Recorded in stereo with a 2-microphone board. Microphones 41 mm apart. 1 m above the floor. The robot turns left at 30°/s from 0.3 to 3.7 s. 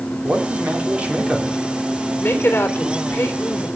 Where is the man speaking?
130° right, 2.5 m; by 1.6 s 170° right, 2.5 m.